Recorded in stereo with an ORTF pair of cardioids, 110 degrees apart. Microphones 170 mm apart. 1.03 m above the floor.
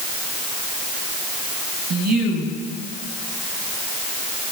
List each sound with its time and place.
1.9 s a woman speaking: 65° right, 7.5 m